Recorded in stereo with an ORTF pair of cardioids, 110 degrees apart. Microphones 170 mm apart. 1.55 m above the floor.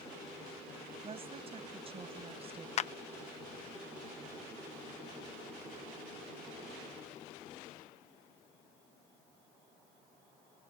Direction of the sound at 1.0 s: 35° right.